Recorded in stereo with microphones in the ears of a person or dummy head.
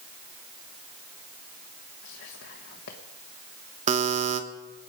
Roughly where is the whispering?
Left.